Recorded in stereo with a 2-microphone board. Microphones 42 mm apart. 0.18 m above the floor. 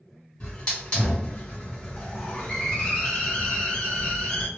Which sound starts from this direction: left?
A hiss, at 0.4 s.